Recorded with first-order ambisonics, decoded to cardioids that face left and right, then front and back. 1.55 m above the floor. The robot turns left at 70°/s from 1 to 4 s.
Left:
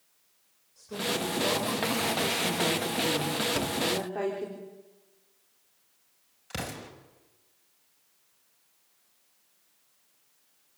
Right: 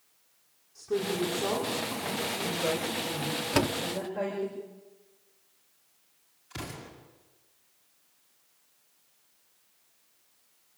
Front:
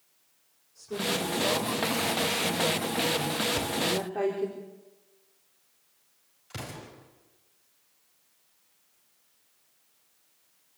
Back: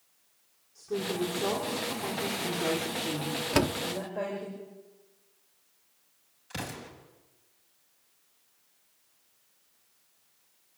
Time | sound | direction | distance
0.8 | a woman speaking | 105° right | 5 m
3.5 | a door slam | 155° right | 0.9 m
6.5 | an explosion | 90° left | 5.5 m